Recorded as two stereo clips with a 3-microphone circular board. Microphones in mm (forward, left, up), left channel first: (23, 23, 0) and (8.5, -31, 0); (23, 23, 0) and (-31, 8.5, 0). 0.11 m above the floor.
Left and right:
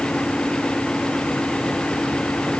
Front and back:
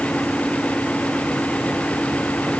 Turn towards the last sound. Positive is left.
No sound to turn to.